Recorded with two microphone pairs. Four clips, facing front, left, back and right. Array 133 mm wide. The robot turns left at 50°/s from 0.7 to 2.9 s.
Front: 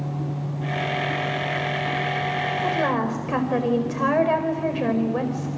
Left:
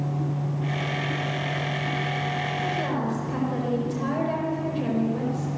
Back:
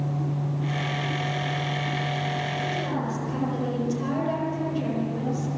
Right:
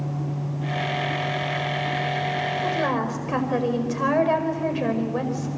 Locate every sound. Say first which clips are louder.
2.6 s a woman speaking: right 3 dB, front 6 dB; 30° right, 5 m; by 5.5 s 45° right, 5 m